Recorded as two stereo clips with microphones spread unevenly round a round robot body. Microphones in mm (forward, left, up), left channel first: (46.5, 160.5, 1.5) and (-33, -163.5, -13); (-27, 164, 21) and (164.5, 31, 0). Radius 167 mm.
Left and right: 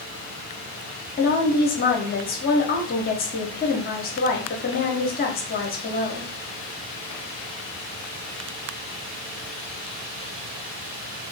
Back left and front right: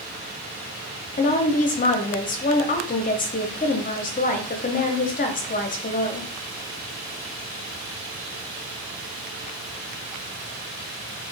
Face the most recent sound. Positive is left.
turn(degrees=120)